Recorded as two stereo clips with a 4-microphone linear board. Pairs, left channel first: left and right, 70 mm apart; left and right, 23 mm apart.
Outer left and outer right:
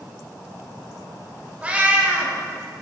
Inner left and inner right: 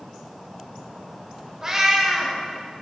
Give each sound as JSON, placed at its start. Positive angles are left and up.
{"t": 1.6, "sound": "a cat meowing", "side_deg": -20, "distance_m": 0.8}